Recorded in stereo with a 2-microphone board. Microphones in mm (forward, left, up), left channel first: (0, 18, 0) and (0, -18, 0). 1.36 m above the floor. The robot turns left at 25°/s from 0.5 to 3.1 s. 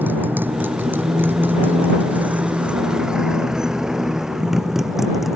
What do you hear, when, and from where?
0.0 s a motorcycle: 70° right (ahead or behind); by 5.4 s 5° right (ahead or behind)